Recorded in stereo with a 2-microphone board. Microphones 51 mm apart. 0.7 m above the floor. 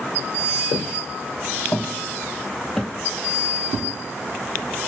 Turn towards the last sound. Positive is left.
turn(degrees=-30)  # may be behind; listen again after turning